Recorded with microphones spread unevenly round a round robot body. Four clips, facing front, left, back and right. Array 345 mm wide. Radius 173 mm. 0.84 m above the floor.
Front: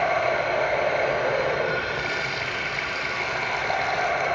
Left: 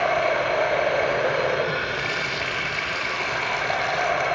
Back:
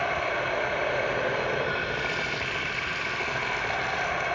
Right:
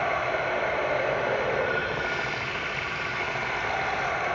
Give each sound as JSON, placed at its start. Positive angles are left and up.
{"t": 0.0, "sound": "running water", "azimuth_deg": 85, "distance_m": 1.0}